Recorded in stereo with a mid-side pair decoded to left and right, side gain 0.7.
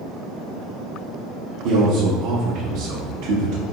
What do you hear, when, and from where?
1.6 s a man speaking: 65° right, 0.9 m